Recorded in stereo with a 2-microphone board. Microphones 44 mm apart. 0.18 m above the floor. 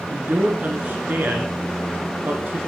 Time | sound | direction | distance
0.1 | a man speaking | 45° right (ahead or behind) | 2 m